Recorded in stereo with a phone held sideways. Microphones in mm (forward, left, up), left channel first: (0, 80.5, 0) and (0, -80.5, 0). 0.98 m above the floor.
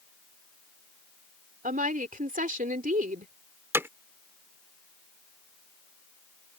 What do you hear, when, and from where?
1.6 s a woman speaking: 60° right (ahead or behind)
3.7 s hammering: 15° right (ahead or behind)